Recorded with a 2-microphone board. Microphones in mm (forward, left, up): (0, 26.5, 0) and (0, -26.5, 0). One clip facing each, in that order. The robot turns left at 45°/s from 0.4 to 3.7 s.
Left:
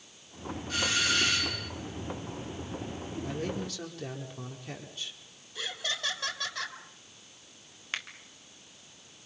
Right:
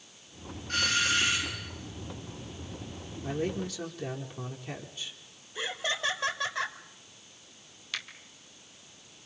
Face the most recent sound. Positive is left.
turn(degrees=35)  # may be behind; listen again after turning